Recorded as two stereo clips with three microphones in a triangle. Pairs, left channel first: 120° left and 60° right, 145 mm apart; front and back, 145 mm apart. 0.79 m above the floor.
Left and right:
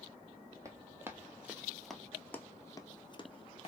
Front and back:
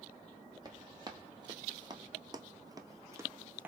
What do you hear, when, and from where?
0.7 s running footsteps: 125° right, 1.3 m; by 3.7 s 110° left, 1.0 m